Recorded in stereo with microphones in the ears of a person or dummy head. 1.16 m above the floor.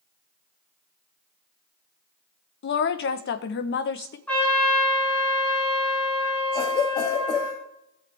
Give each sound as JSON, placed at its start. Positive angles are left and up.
{"t": 2.6, "sound": "a woman speaking", "side_deg": 55, "distance_m": 0.9}
{"t": 4.3, "sound": "a trumpet", "side_deg": 5, "distance_m": 4.5}
{"t": 6.5, "sound": "a cough", "side_deg": 20, "distance_m": 1.7}